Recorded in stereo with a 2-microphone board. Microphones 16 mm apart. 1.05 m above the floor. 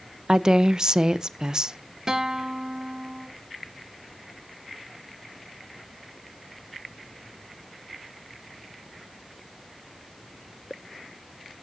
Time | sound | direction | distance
0.3 | a woman speaking | 50° right (ahead or behind) | 0.5 m
2.1 | a guitar | 45° right (ahead or behind) | 1.0 m